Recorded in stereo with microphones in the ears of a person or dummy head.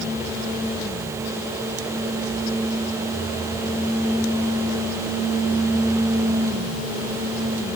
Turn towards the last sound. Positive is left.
No sound to turn to.